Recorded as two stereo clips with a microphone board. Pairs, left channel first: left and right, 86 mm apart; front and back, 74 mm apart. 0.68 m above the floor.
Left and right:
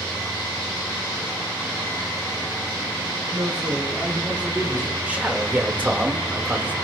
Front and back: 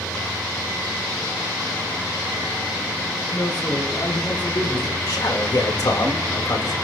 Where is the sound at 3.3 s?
10° right, 9 m; by 5.0 s 15° right, 8 m.